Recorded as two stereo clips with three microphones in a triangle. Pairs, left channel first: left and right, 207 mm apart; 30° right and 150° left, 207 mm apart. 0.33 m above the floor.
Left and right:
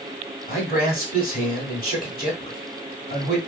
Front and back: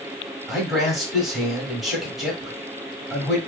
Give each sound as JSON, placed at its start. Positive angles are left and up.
{"t": 0.5, "sound": "a man speaking", "azimuth_deg": 60, "distance_m": 1.2}